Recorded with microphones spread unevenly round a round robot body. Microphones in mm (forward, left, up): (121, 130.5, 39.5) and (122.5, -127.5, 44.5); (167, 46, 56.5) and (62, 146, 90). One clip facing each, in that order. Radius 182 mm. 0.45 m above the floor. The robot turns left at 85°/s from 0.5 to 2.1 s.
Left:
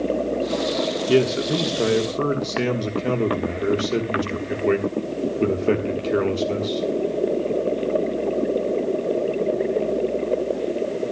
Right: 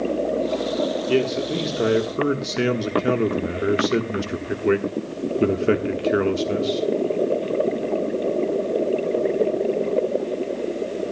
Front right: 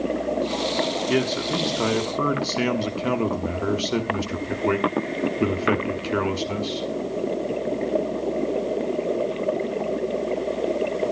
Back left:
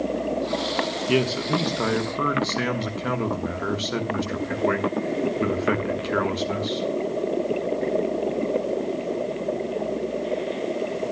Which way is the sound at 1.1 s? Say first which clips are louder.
Left 4 dB, back left 4 dB; 55° left.